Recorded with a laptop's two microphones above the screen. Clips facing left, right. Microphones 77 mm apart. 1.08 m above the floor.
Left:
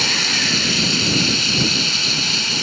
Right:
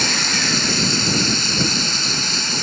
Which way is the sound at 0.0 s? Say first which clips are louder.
Right 1 dB; 20° right (ahead or behind).